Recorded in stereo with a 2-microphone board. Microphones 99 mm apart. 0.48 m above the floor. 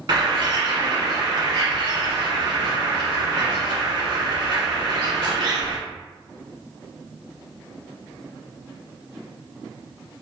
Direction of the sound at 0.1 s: 55° right (ahead or behind).